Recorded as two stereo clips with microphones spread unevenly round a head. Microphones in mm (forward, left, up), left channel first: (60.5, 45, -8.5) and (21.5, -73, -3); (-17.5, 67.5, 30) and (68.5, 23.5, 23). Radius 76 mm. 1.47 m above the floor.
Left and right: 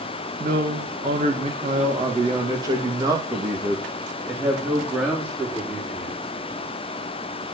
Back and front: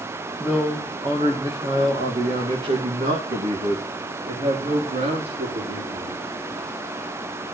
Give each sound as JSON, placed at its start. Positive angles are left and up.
{"t": 0.4, "sound": "a man speaking", "azimuth_deg": -100, "distance_m": 2.0}